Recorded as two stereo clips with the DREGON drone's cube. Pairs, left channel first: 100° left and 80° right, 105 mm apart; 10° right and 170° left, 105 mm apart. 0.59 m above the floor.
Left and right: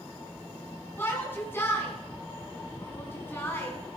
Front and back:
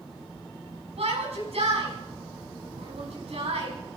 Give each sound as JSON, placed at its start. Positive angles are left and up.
{"t": 1.0, "sound": "a shout", "azimuth_deg": 170, "distance_m": 5.0}